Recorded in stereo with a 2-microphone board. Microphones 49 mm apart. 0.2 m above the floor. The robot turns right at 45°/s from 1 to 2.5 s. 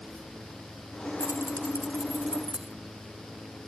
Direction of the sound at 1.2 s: 60° right (ahead or behind).